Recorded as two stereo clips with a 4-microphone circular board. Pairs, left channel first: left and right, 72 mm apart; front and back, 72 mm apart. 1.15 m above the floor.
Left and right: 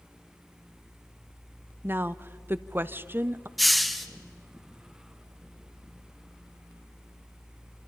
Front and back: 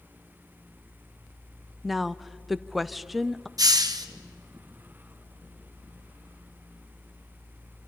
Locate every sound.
1.8 s a woman speaking: 90° right, 0.6 m
3.6 s a hiss: straight behind, 1.4 m